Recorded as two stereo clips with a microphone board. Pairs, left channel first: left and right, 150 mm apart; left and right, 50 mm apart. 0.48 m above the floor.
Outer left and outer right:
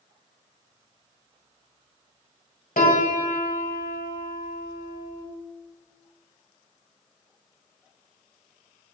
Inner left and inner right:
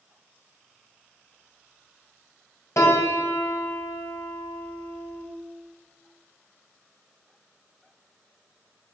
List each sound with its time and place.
2.8 s a piano: 75° left (ahead or behind), 1.9 m